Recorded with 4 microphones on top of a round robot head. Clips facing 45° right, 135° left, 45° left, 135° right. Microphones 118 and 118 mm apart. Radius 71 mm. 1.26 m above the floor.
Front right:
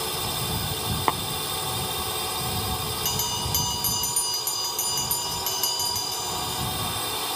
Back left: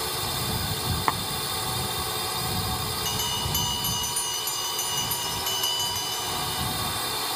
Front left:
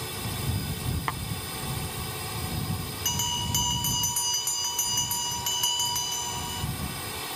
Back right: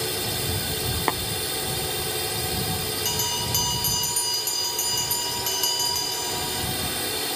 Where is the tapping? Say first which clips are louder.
Front right 2 dB, back right 8 dB; 110° right.